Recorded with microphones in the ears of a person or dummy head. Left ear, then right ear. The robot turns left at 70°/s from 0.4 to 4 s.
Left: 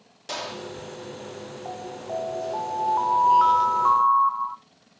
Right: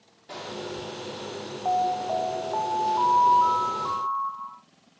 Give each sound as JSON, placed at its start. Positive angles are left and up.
{"t": 0.3, "sound": "a gunshot", "side_deg": 85, "distance_m": 1.2}
{"t": 1.6, "sound": "an alarm", "azimuth_deg": -100, "distance_m": 0.8}